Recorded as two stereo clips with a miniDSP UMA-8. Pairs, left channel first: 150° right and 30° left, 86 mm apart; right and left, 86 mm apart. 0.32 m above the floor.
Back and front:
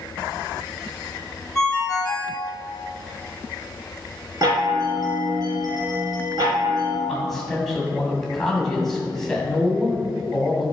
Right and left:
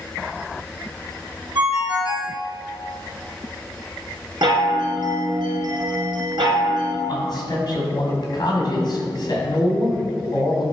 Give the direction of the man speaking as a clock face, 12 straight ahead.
2 o'clock.